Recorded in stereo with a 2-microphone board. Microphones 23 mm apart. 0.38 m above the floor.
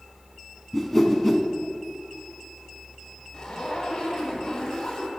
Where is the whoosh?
10° left (ahead or behind), 0.8 m.